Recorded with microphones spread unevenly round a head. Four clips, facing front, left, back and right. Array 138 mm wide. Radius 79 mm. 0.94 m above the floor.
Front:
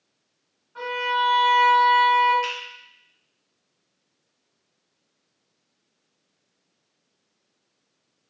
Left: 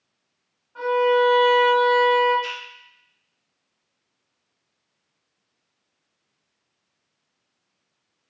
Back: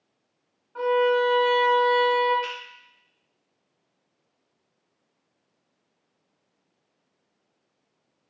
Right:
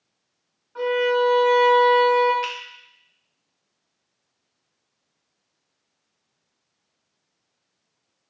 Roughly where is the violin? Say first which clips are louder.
Left 2 dB, back 4 dB; behind.